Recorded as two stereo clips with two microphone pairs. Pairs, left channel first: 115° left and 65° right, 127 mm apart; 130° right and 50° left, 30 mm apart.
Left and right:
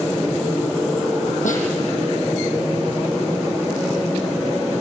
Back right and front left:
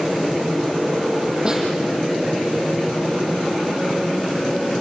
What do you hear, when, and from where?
1.4 s a snare drum: 115° left, 7.5 m